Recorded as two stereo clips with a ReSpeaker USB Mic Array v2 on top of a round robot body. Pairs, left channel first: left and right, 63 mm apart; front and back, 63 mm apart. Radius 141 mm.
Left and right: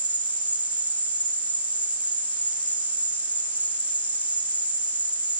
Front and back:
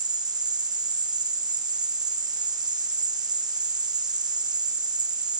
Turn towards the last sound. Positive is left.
turn(degrees=-160)